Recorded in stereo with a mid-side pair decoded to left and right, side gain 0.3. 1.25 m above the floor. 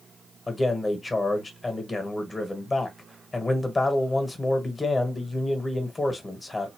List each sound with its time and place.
0.5 s a man speaking: 35° left, 1.4 m